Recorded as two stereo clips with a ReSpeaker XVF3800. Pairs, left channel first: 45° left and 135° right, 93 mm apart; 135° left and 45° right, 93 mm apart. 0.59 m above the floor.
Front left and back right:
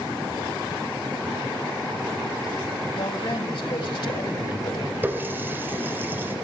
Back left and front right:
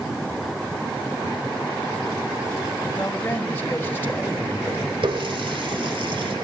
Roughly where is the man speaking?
Left.